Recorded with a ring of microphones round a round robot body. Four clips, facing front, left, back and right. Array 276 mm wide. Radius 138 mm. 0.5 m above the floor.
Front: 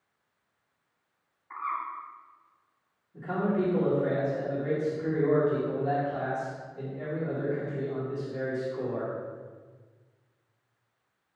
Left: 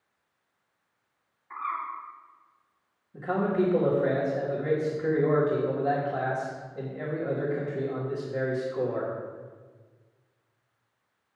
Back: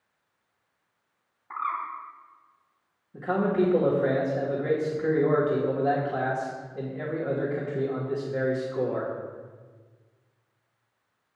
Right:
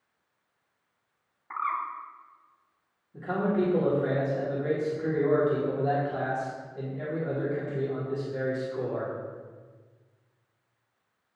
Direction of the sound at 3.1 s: 165° left.